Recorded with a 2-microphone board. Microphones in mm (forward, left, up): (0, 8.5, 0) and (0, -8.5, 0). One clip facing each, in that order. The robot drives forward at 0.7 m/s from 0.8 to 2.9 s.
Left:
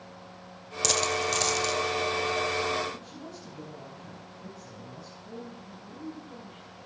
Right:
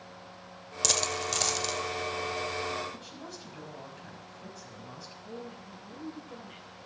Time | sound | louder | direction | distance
0.8 | a dropped coin | left 3 dB | centre (ahead or behind) | 0.6 m
2.9 | a woman speaking | left 1 dB | 55° right (ahead or behind) | 5.5 m
5.2 | a woman speaking | even | 70° right (ahead or behind) | 6.5 m